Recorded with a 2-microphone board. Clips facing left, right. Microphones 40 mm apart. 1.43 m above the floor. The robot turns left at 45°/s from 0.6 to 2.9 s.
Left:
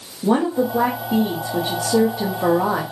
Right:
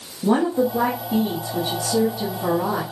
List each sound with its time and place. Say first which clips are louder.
0.2 s a woman speaking: even; 175° left, 0.8 m; by 2.8 s 80° left, 0.8 m